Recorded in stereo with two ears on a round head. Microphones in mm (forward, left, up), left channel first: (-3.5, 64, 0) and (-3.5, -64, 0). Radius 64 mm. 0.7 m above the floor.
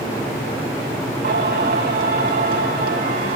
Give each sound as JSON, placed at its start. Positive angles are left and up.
{"t": 1.2, "sound": "singing", "side_deg": -75, "distance_m": 6.0}